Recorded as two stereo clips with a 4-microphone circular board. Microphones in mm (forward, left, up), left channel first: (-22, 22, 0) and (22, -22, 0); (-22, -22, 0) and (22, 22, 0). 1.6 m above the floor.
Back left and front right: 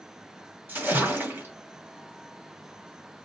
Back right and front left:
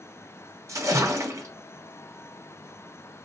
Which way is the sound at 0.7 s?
15° left.